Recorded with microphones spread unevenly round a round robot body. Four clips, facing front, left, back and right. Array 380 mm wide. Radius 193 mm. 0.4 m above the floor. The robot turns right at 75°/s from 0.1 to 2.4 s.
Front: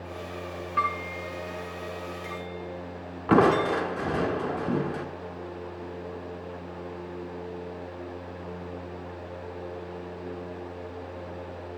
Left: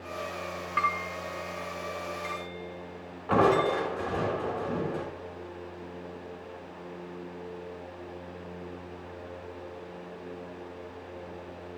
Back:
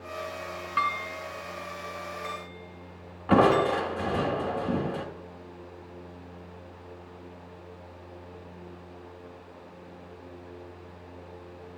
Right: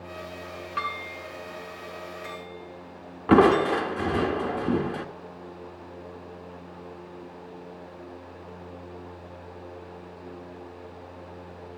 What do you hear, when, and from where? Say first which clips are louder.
0.8 s dishes clattering: left 4 dB, front 1 dB; 140° right, 4 m; by 3.8 s 15° right, 4 m
3.3 s crushing: right 5 dB, even; 70° right, 1.3 m